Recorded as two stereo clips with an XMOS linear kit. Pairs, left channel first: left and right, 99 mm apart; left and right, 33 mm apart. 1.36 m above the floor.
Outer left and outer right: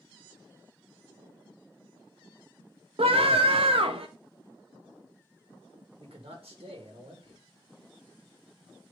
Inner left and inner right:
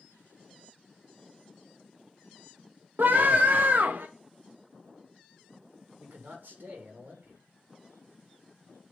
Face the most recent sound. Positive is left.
turn(degrees=-85)